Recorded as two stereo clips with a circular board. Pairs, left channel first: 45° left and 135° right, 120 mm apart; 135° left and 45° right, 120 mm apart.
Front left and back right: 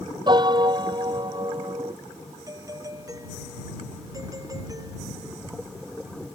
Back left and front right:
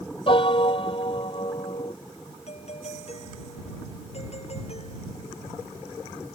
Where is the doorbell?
165° left.